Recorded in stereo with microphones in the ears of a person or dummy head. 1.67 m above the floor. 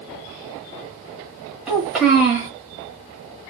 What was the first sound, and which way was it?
A child speaking, 5° right (ahead or behind).